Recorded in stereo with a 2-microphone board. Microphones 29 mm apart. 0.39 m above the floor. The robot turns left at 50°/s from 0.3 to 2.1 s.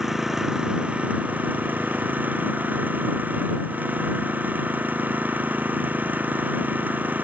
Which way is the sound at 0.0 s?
10° right.